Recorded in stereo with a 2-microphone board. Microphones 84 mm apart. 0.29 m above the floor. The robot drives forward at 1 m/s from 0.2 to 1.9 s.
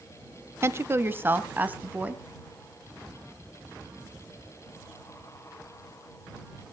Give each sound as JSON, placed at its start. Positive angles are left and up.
{"t": 0.6, "sound": "a woman speaking", "side_deg": -35, "distance_m": 1.0}